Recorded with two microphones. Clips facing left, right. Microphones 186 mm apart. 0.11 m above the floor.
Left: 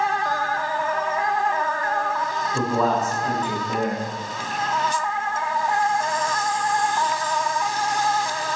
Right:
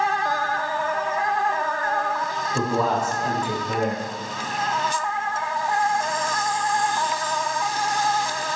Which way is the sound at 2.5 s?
10° right (ahead or behind).